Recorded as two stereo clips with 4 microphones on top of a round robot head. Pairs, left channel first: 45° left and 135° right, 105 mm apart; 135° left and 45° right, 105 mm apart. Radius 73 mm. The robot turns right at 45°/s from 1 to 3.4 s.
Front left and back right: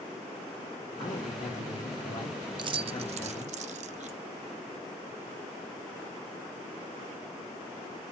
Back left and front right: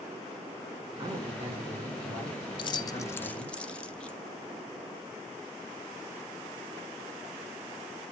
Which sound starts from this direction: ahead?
A man speaking, at 1.0 s.